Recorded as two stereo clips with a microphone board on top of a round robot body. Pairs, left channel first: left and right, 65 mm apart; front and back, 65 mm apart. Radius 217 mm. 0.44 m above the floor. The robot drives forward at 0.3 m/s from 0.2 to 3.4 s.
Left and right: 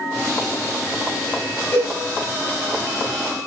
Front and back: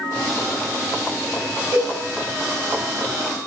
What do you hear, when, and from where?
1.7 s a cowbell: 155° left, 4 m